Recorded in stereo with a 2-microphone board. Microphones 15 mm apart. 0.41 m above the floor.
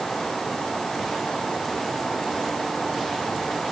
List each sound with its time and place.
Only background noise.